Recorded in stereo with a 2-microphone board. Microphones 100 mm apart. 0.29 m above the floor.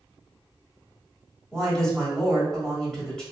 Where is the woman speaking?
5° left (ahead or behind), 1.4 m.